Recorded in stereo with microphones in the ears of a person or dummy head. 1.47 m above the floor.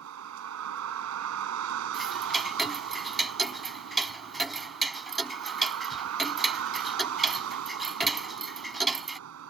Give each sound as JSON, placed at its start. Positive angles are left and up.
{"t": 0.0, "sound": "a vehicle", "side_deg": -80}
{"t": 1.9, "sound": "ticking", "side_deg": 0}